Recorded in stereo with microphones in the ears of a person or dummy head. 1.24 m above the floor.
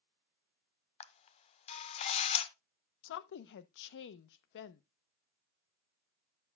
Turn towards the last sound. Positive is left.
turn(degrees=70)  # may be behind; listen again after turning